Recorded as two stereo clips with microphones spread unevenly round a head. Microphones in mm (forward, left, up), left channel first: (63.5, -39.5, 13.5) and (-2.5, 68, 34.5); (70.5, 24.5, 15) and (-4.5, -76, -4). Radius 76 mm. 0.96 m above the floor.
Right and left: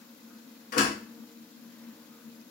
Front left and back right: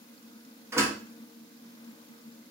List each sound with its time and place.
0.7 s a door slam: 60° right, 1.0 m